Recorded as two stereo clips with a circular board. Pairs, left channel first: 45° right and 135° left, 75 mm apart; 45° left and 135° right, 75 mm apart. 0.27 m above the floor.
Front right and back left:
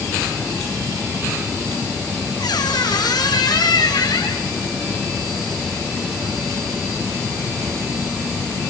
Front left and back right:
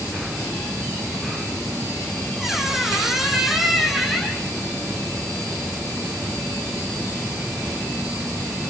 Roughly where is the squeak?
Ahead right.